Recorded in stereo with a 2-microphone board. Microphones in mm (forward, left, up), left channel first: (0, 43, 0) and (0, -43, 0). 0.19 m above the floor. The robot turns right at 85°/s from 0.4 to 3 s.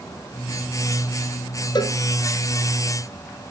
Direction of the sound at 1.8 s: 55° left (ahead or behind).